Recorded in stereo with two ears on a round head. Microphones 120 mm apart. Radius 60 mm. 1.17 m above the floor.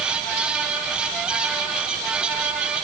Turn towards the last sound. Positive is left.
No sound to turn to.